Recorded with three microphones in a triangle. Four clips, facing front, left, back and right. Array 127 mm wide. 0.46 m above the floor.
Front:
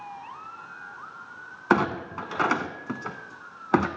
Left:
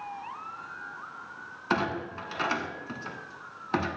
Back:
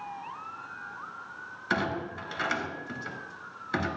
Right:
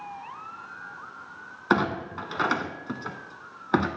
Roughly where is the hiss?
I don't hear a hiss.